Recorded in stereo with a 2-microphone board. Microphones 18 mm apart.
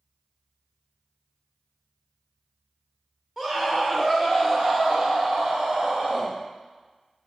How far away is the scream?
About 2 m.